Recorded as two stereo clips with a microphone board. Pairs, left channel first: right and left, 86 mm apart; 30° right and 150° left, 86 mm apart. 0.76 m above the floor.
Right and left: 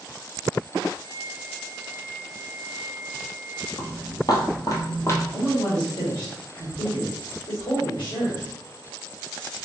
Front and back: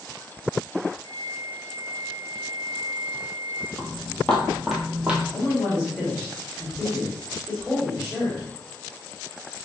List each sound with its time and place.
1.0 s a flute: 55° right, 1.3 m
3.8 s footsteps: 95° right, 1.5 m; by 5.2 s 140° right, 1.2 m
5.3 s a man speaking: 95° right, 2.5 m